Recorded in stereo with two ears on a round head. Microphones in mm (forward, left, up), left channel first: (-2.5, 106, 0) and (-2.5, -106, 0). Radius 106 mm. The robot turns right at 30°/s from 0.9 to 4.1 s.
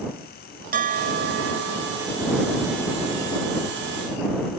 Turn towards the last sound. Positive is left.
turn(degrees=-45)